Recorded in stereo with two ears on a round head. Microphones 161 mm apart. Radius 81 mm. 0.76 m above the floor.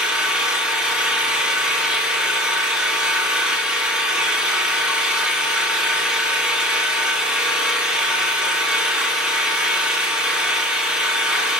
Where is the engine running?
5° right (ahead or behind), 1.6 m.